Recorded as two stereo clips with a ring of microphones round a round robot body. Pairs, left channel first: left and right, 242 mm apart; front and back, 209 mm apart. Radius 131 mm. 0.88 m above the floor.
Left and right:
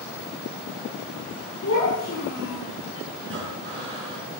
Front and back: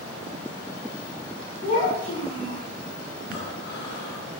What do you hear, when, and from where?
1.6 s a child speaking: 55° left, 8.5 m
3.2 s breathing: 50° right, 5 m